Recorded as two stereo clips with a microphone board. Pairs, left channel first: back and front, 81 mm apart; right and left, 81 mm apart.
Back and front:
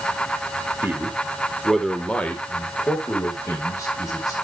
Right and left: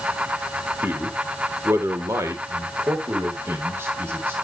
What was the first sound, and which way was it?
A man speaking, 45° left.